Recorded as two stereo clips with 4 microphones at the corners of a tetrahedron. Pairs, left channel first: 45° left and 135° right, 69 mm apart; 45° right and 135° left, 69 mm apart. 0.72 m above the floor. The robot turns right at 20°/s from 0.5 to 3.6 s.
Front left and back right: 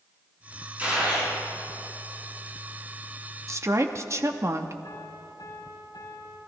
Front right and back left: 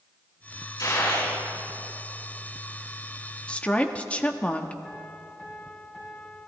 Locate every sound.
0.8 s a gunshot: 70° right, 7 m; by 1.3 s 60° right, 7 m
3.5 s a woman speaking: 110° right, 1.0 m
4.8 s a piano: 25° left, 4 m